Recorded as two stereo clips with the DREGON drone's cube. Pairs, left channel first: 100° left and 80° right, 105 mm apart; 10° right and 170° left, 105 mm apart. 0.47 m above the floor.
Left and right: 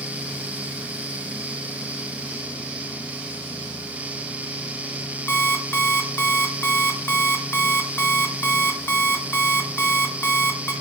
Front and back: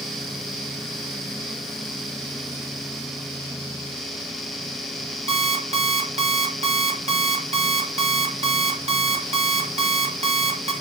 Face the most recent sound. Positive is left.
turn(degrees=170)